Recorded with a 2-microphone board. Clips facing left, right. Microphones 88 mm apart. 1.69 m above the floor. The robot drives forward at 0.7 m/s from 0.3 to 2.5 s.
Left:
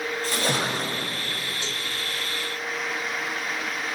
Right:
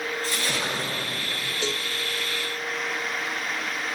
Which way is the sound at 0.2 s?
50° left (ahead or behind).